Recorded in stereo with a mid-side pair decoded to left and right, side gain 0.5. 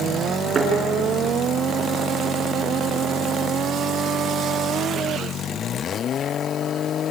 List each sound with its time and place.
0.6 s a thud: 35° right, 7.5 m